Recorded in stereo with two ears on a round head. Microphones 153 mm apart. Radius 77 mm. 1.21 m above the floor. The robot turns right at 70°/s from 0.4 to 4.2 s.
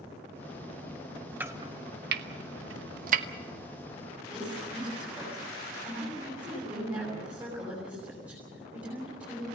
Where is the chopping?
10° right (ahead or behind), 1.1 m; by 3.2 s 40° right (ahead or behind), 1.1 m.